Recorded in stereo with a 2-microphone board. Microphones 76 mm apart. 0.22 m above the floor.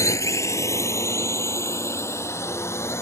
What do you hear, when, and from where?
0.0 s a drone: 40° left (ahead or behind); by 3.0 s 35° left (ahead or behind)